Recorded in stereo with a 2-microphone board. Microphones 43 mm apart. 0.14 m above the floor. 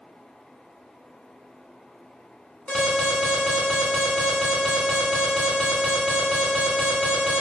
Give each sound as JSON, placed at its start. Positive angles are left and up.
{"t": 2.7, "sound": "an alarm", "side_deg": 25, "distance_m": 1.0}